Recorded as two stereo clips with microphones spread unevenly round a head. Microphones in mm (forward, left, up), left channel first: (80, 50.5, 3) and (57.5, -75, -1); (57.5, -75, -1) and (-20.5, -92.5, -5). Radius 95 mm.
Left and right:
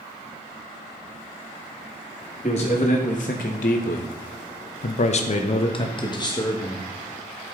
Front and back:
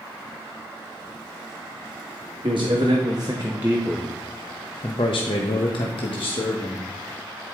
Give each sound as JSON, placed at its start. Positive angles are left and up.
{"t": 2.4, "sound": "a man speaking", "azimuth_deg": 140, "distance_m": 1.3}